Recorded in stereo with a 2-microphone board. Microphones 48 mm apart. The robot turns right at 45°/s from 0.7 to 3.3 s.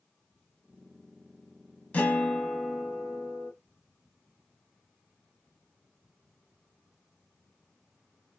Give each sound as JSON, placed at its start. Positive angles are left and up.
{"t": 1.9, "sound": "a guitar", "azimuth_deg": 145, "distance_m": 0.8}